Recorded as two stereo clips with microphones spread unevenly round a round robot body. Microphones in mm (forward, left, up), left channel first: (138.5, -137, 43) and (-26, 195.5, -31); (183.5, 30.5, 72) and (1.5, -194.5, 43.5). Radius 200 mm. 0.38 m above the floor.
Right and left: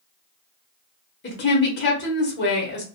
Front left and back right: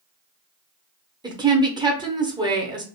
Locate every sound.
1.2 s a woman speaking: 110° right, 0.8 m